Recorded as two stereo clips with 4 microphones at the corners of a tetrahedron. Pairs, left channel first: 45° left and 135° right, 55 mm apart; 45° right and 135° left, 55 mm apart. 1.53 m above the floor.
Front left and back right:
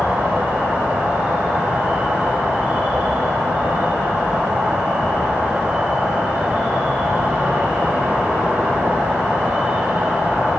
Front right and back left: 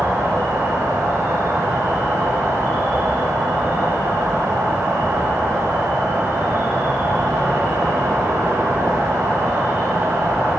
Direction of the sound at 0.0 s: 160° left.